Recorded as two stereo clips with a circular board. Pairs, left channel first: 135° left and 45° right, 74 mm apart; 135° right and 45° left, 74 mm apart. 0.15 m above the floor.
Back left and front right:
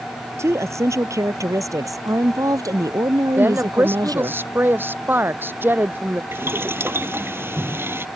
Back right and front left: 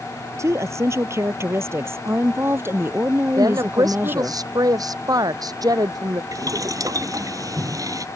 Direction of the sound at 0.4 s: Straight ahead.